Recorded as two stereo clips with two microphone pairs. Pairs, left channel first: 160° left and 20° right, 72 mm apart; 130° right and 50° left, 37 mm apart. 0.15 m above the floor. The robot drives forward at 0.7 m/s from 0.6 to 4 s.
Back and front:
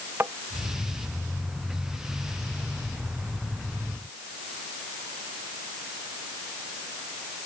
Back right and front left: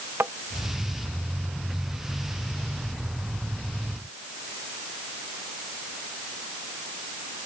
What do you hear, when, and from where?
0.2 s tapping: 40° left